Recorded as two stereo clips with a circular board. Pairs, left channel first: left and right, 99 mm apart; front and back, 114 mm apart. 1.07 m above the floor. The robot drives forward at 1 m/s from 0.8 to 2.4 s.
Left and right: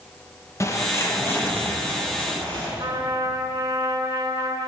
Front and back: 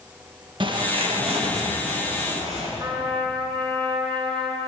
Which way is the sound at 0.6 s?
145° left.